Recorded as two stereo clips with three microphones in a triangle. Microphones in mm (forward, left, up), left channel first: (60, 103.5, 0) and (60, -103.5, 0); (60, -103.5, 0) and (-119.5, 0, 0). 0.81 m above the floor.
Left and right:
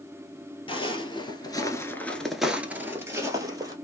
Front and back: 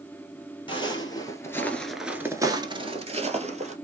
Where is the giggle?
I don't hear a giggle.